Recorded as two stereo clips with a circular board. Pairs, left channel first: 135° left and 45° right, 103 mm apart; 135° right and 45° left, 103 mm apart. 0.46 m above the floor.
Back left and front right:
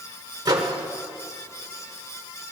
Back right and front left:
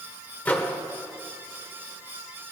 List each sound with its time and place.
0.5 s a microwave: 70° right, 1.5 m